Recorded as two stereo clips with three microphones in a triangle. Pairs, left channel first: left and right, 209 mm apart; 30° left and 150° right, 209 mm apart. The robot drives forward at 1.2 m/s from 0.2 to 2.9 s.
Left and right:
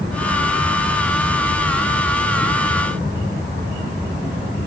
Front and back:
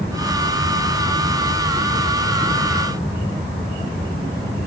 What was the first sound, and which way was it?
Only background noise.